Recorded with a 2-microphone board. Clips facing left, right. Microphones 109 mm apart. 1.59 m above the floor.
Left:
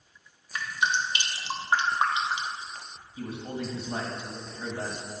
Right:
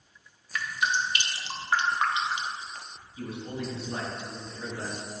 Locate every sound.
0.5 s dripping: 25° left (ahead or behind), 0.7 m
3.2 s a man speaking: 35° left (ahead or behind), 1.9 m